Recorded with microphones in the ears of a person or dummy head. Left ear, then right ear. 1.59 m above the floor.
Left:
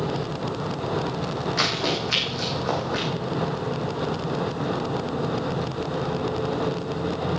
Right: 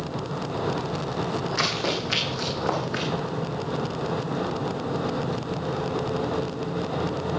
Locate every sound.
1.6 s running footsteps: 5° left (ahead or behind), 4 m; by 3.1 s 15° right (ahead or behind), 4 m